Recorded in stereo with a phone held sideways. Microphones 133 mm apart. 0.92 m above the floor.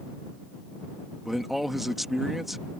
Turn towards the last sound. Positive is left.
turn(degrees=0)  # may be behind; listen again after turning